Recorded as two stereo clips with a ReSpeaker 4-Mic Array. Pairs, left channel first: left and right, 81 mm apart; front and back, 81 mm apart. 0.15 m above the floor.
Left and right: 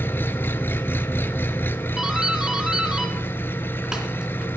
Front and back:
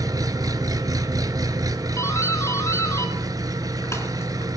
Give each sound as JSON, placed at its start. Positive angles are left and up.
{"t": 0.0, "sound": "an engine running", "azimuth_deg": 150, "distance_m": 0.8}
{"t": 2.0, "sound": "a doorbell", "azimuth_deg": -15, "distance_m": 2.5}